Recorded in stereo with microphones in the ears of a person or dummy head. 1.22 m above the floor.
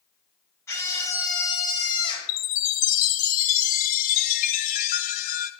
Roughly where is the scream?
Centre.